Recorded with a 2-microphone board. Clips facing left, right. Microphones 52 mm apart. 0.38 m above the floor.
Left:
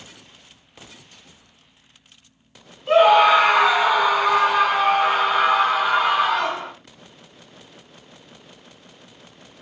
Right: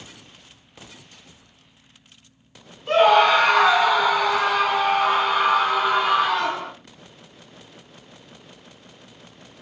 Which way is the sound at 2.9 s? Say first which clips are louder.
Left 2 dB; 5° left (ahead or behind).